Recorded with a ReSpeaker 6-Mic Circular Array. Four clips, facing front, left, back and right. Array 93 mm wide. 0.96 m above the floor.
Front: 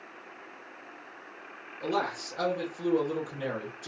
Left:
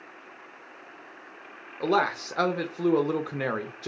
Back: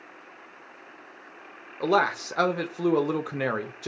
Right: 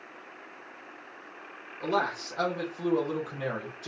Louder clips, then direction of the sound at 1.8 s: Left 4 dB, back 7 dB; 145° left.